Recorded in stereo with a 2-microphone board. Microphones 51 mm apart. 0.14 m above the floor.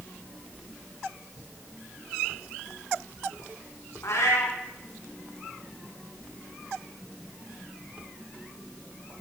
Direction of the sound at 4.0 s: 70° left (ahead or behind).